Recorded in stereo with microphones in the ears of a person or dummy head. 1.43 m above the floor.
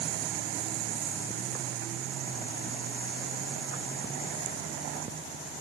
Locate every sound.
Only background noise.